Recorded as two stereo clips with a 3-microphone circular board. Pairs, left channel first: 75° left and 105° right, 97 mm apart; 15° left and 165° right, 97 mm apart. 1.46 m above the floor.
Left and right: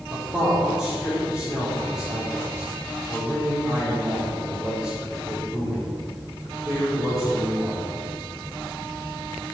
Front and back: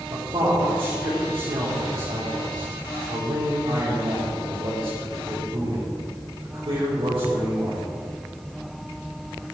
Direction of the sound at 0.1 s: 170° left.